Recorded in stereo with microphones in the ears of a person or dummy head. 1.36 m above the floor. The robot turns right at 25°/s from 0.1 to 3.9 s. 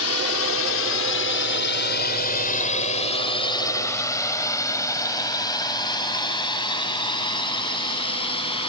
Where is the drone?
70° left (ahead or behind); by 8.7 s 25° left (ahead or behind).